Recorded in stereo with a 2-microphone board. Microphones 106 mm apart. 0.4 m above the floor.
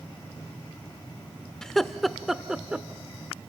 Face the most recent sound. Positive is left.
turn(degrees=-10)  # may be behind; listen again after turning